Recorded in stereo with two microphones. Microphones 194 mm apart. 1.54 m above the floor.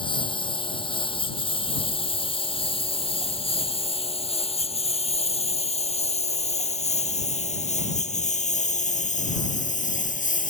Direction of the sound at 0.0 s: 25° left (ahead or behind).